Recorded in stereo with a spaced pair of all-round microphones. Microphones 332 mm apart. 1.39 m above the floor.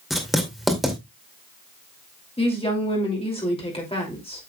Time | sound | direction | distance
0.1 | writing | centre (ahead or behind) | 2 m
2.4 | a woman speaking | 15° left (ahead or behind) | 3 m